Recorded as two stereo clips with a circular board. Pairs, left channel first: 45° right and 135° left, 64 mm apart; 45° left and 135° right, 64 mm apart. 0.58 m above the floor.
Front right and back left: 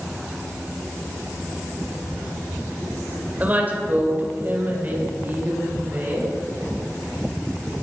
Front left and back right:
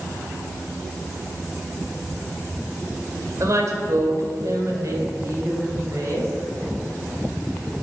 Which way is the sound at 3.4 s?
165° right.